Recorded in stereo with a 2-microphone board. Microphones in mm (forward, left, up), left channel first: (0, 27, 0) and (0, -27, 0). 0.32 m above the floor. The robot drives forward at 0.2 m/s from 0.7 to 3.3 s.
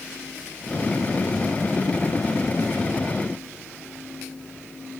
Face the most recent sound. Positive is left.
No sound to turn to.